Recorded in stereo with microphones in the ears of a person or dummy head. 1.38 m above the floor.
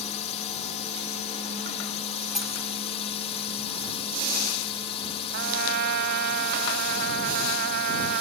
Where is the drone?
35° left (ahead or behind); by 8.2 s 30° left (ahead or behind).